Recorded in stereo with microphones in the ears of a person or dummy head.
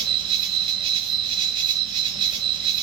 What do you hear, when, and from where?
0.0 s an insect: 30° right (ahead or behind), 1.1 m